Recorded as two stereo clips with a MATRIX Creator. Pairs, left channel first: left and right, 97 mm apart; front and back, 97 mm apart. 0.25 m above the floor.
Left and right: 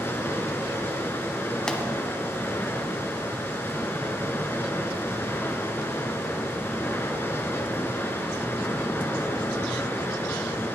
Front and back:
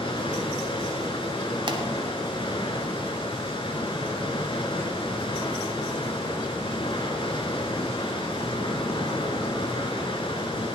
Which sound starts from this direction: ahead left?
Running water, at 0.0 s.